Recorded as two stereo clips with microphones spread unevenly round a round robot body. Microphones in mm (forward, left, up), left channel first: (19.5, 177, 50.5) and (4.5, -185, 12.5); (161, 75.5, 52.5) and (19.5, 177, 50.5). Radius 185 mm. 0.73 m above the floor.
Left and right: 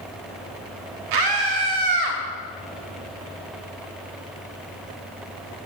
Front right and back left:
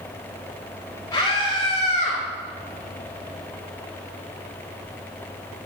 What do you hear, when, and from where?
1.1 s a scream: 110° right, 1.3 m; by 2.2 s 100° right, 1.8 m